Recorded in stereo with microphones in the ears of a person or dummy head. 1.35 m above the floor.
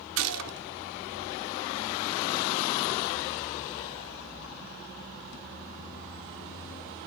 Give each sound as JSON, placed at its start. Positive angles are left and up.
{"t": 0.2, "sound": "a gunshot", "side_deg": -65, "distance_m": 0.7}